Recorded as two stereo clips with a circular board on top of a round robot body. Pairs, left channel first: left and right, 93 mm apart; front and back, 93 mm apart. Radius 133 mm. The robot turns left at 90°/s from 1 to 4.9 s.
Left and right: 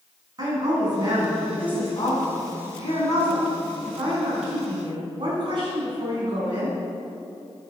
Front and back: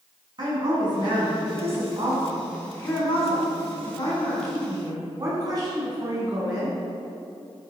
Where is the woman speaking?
140° right, 6 m; by 6.8 s 130° right, 6 m.